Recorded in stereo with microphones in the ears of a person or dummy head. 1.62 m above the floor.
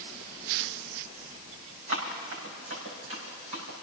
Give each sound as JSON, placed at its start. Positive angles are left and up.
{"t": 1.9, "sound": "running footsteps", "side_deg": -70, "distance_m": 5.0}